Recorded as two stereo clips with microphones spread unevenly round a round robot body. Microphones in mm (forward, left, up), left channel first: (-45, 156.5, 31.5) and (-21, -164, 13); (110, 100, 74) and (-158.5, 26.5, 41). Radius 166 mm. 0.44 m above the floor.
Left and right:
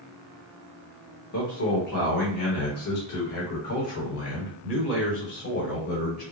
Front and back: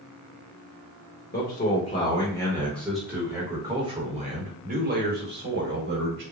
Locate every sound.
1.3 s a man speaking: 70° left, 1.5 m; by 6.2 s 155° left, 2.5 m